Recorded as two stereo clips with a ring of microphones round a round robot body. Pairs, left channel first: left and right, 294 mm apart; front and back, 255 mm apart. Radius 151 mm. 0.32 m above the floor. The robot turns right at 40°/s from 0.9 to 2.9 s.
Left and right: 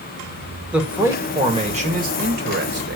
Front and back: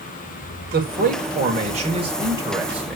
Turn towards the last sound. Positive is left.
turn(degrees=-95)